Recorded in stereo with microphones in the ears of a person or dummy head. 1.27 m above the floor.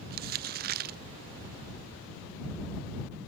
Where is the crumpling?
50° right (ahead or behind).